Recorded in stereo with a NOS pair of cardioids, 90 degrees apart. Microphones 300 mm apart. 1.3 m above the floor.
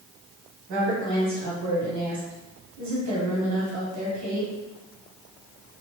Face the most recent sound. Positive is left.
turn(degrees=-65)